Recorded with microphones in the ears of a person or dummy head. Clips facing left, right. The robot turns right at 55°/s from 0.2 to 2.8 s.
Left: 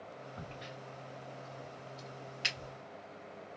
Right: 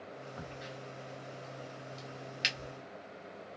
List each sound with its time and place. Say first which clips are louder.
0.4 s a crack: right 2 dB; centre (ahead or behind), 1.0 m; by 2.7 s 20° right (ahead or behind), 1.0 m